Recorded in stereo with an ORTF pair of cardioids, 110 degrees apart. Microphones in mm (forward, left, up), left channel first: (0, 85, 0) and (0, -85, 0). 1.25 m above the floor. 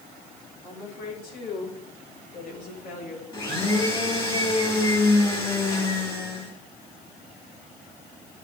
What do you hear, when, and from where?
0.6 s a woman speaking: 70° left, 7 m; by 3.2 s 60° left, 5 m
3.3 s a blender: 25° left, 4.5 m